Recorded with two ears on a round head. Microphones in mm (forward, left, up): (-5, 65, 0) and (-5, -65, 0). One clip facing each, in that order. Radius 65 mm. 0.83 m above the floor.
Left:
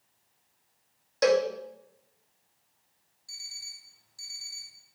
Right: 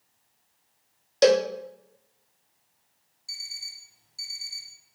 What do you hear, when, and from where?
1.2 s a cowbell: 30° right (ahead or behind), 0.6 m
3.3 s an alarm clock: 25° right (ahead or behind), 1.5 m